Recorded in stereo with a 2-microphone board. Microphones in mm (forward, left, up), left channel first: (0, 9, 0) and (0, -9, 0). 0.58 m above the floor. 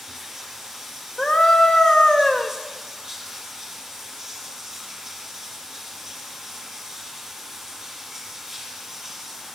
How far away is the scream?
About 1.6 m.